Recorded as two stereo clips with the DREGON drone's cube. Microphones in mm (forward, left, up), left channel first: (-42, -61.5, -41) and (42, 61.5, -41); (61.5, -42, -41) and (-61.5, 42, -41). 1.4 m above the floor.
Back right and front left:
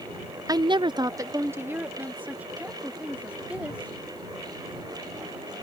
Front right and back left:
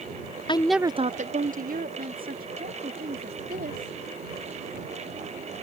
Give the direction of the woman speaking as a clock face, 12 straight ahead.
12 o'clock.